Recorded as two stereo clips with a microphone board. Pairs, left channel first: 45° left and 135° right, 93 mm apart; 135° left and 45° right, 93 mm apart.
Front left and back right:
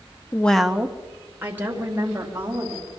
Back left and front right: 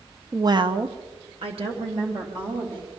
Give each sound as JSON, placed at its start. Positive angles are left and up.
{"t": 0.3, "sound": "a woman speaking", "azimuth_deg": 5, "distance_m": 0.5}